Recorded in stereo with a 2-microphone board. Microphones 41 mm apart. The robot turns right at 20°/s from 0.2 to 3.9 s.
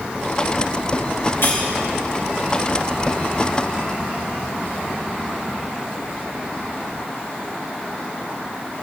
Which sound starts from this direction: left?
Cutlery clinking, at 1.4 s.